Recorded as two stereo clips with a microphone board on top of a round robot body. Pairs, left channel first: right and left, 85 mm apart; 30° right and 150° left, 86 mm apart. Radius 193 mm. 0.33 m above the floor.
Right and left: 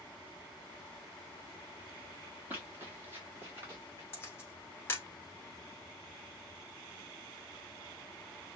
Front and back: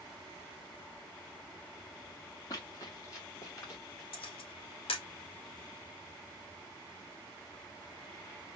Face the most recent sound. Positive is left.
turn(degrees=-25)